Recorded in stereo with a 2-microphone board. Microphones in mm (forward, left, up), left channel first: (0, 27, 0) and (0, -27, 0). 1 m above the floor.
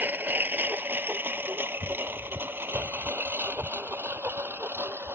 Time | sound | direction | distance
0.0 | a lawn mower | 35° right (ahead or behind) | ?